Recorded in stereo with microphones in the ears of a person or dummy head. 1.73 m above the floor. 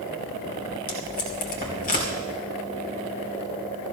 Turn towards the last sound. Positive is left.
turn(degrees=45)  # may be behind; listen again after turning